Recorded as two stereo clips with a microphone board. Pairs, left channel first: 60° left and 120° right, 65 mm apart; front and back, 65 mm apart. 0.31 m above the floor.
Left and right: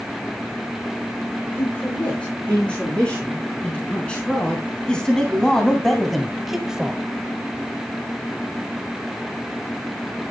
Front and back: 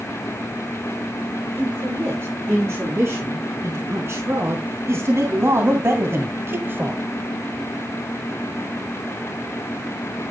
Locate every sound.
1.6 s a man speaking: 130° left, 7 m; by 7.0 s 175° right, 1.5 m